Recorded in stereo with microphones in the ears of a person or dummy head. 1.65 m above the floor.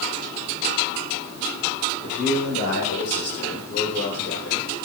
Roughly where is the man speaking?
Left.